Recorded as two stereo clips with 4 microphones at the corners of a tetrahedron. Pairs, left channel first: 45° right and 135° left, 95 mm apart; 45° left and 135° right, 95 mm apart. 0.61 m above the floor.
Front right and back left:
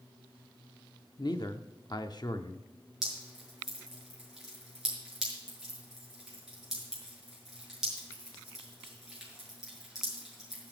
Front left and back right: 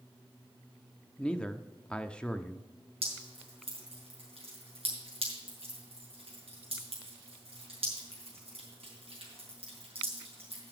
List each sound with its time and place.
1.2 s a man speaking: 35° right, 0.8 m
3.0 s dripping: 140° right, 6 m